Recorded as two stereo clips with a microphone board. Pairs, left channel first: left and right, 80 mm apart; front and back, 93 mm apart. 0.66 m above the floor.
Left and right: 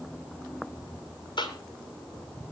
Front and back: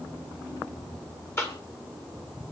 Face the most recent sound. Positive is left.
turn(degrees=65)